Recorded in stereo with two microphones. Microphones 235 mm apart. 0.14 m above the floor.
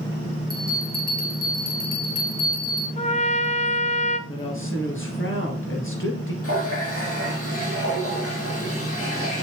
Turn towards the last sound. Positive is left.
turn(degrees=70)  # may be behind; listen again after turning